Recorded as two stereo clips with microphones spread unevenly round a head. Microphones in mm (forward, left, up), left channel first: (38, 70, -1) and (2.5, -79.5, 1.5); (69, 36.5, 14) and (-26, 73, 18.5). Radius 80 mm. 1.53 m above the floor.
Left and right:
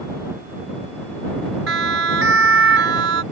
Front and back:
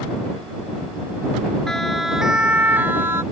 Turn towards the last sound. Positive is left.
turn(degrees=-125)